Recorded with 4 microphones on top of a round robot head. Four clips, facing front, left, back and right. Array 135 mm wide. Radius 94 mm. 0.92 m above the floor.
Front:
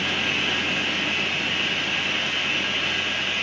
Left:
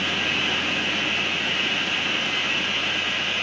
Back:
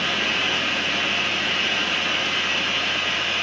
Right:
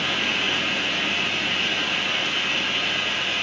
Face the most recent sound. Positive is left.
turn(degrees=-170)